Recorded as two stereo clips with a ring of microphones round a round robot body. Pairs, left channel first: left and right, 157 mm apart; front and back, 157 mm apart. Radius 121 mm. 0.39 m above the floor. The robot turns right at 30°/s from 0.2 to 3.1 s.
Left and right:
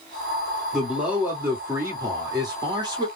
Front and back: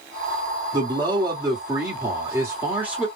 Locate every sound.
0.7 s a man speaking: 175° right, 1.5 m; by 3.1 s 105° right, 1.5 m